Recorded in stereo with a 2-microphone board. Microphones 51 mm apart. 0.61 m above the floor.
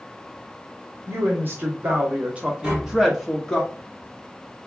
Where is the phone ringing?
No phone ringing in this recording.